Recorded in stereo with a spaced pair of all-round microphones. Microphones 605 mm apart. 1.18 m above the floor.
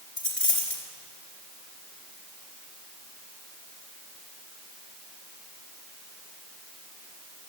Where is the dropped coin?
70° left (ahead or behind), 3 m.